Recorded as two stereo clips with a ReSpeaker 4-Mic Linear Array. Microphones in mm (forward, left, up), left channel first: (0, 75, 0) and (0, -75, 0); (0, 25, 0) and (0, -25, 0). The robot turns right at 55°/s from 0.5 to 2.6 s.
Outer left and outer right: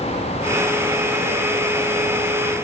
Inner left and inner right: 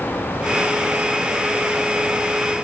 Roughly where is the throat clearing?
I don't hear throat clearing.